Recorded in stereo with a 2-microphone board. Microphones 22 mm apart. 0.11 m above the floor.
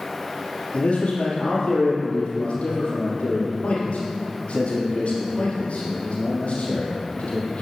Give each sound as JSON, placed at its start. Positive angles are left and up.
{"t": 0.7, "sound": "a man speaking", "side_deg": 60, "distance_m": 3.0}